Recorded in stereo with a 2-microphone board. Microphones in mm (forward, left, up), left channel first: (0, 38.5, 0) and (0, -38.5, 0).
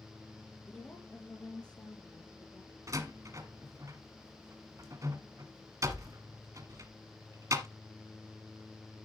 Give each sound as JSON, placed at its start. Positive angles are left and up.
{"t": 0.6, "sound": "a woman speaking", "side_deg": 15, "distance_m": 3.0}
{"t": 2.9, "sound": "a door slam", "side_deg": -45, "distance_m": 1.3}